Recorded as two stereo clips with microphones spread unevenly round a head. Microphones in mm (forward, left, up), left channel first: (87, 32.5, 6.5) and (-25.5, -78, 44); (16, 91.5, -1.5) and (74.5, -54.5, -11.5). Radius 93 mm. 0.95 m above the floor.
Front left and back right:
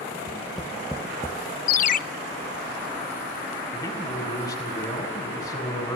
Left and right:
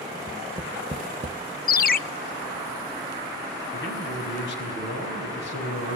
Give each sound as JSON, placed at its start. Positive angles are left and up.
{"t": 0.3, "sound": "tapping", "azimuth_deg": -75, "distance_m": 0.7}
{"t": 1.7, "sound": "a ringtone", "azimuth_deg": 80, "distance_m": 0.7}
{"t": 3.7, "sound": "a man speaking", "azimuth_deg": 115, "distance_m": 6.0}